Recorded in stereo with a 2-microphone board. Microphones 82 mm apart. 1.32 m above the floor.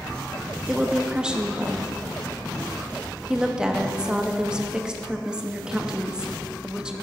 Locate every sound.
0.7 s a woman speaking: 10° right (ahead or behind), 0.8 m